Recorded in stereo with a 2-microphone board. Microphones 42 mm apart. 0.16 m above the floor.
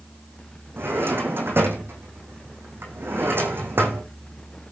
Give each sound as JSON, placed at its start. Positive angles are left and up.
{"t": 0.8, "sound": "a drawer", "side_deg": -60, "distance_m": 3.5}